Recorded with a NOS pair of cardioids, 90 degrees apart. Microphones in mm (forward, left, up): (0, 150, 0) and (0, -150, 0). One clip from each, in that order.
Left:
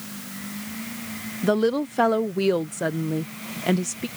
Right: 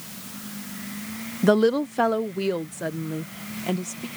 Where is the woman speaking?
20° right; by 4.1 s 35° left.